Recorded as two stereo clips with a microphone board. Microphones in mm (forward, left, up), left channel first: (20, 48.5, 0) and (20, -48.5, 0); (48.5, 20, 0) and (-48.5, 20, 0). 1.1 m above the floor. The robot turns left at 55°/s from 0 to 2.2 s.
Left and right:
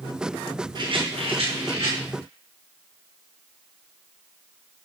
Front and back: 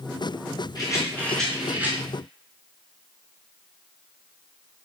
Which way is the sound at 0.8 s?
50° right.